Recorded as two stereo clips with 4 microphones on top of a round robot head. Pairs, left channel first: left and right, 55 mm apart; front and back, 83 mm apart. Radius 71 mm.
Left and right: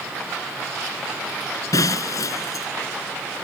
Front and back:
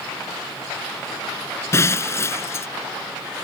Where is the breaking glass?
55° left.